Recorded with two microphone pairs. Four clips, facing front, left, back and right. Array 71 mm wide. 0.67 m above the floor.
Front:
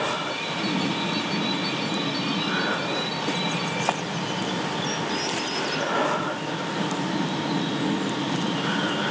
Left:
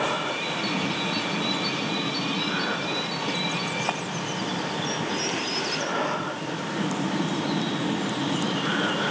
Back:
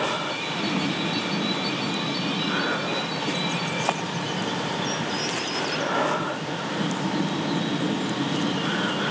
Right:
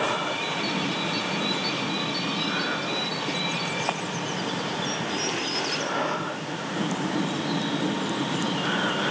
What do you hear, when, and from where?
Only background noise.